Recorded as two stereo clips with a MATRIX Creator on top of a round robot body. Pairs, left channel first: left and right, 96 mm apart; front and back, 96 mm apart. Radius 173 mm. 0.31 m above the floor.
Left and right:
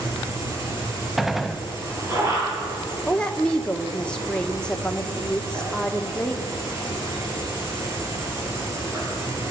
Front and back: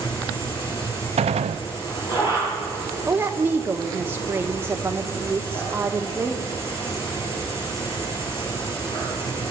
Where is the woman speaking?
155° left, 1.5 m.